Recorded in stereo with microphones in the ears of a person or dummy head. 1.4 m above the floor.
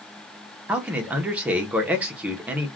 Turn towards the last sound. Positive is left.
turn(degrees=-15)  # may be behind; listen again after turning